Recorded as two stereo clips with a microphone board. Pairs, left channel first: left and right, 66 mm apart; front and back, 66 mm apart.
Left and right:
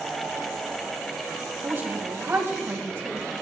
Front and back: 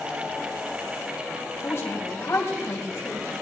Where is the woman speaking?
40° right, 3 m.